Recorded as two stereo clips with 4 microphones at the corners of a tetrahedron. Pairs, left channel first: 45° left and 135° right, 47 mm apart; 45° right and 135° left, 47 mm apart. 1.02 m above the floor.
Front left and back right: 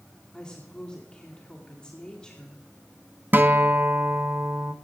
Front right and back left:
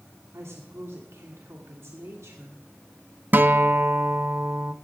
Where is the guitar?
Straight behind, 0.8 m.